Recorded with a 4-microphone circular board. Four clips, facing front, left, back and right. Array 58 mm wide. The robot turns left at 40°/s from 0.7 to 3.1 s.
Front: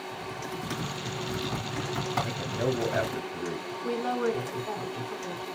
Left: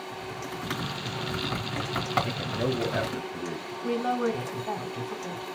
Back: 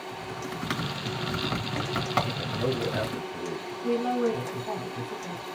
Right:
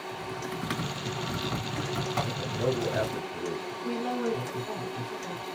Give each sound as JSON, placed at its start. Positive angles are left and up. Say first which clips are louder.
{"t": 0.1, "sound": "typing on a keyboard", "louder": "right 2 dB, back 2 dB", "azimuth_deg": -160, "distance_m": 1.3}
{"t": 2.2, "sound": "a man speaking", "louder": "even, even", "azimuth_deg": 55, "distance_m": 1.0}
{"t": 3.8, "sound": "a woman speaking", "louder": "left 4 dB, back 3 dB", "azimuth_deg": 100, "distance_m": 2.5}